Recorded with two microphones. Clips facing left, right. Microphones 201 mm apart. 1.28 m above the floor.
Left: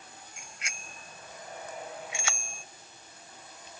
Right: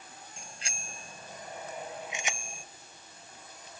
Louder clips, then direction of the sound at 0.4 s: Right 3 dB; 35° right (ahead or behind).